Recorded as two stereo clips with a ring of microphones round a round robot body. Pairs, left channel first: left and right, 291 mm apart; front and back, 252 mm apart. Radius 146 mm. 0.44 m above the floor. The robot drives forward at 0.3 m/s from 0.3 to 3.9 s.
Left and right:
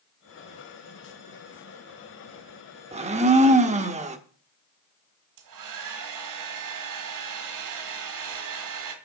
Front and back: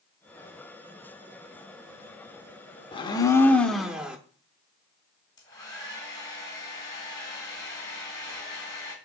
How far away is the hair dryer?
About 1.8 m.